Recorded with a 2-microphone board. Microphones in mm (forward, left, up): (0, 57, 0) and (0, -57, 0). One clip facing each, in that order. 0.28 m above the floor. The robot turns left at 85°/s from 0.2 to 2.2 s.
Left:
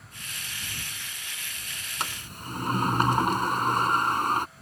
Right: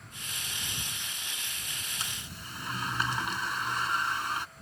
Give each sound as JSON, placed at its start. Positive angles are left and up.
{"t": 2.0, "sound": "a sliding door", "side_deg": 65}